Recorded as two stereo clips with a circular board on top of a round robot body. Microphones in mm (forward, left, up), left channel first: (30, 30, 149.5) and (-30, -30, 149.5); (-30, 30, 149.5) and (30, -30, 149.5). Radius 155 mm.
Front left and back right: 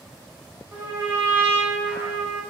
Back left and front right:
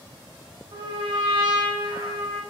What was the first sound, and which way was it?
A trumpet, 65° right.